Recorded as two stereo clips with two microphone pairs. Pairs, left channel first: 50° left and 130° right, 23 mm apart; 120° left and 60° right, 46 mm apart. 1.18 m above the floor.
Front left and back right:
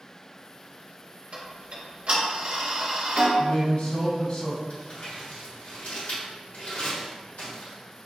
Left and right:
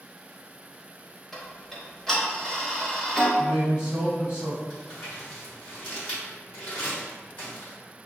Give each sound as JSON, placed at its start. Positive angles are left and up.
{"t": 1.3, "sound": "ticking", "azimuth_deg": -160, "distance_m": 1.0}
{"t": 3.4, "sound": "a man speaking", "azimuth_deg": 100, "distance_m": 1.8}
{"t": 4.7, "sound": "crumpling", "azimuth_deg": 75, "distance_m": 2.0}